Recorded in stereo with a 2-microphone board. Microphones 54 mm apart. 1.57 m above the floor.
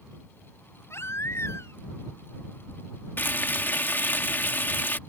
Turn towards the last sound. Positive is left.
turn(degrees=40)  # may be behind; listen again after turning